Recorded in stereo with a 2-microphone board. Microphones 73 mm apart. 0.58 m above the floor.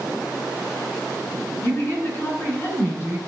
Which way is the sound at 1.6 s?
30° left (ahead or behind).